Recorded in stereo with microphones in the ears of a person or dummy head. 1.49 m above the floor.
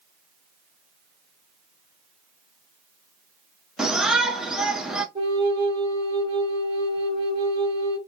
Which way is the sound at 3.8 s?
Centre (ahead or behind).